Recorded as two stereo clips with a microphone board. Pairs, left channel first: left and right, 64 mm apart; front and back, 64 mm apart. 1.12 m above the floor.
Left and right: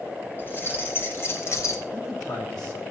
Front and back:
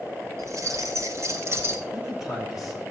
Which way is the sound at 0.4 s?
145° left.